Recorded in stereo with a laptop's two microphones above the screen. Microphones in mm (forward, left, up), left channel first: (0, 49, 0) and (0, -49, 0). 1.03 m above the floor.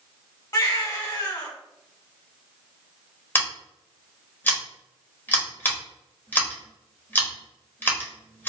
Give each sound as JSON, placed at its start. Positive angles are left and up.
{"t": 0.5, "sound": "a baby crying", "side_deg": 40, "distance_m": 1.6}
{"t": 3.4, "sound": "scissors", "side_deg": 20, "distance_m": 0.9}